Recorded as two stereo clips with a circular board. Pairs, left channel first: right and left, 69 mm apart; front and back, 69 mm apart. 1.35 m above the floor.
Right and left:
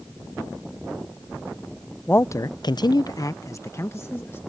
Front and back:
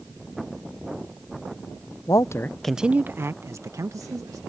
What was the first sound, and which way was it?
A man speaking, 25° right.